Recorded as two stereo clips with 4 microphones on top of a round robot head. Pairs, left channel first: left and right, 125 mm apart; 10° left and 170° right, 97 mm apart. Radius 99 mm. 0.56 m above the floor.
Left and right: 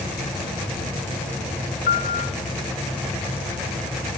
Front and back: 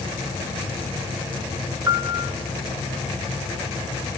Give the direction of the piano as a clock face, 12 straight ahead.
8 o'clock.